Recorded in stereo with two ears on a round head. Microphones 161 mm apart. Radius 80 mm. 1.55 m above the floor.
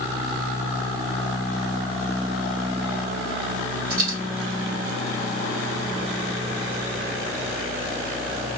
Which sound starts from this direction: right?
A dropped coin, at 3.9 s.